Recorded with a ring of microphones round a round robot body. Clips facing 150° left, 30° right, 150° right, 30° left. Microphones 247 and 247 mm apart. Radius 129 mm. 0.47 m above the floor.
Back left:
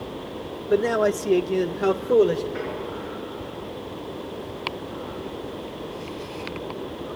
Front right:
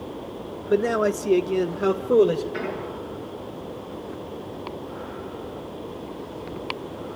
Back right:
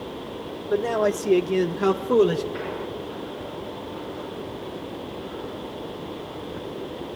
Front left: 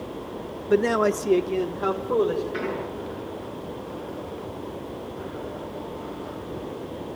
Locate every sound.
0.7 s a man speaking: 55° left, 1.1 m; by 2.4 s 115° right, 2 m
2.5 s an explosion: straight ahead, 6.5 m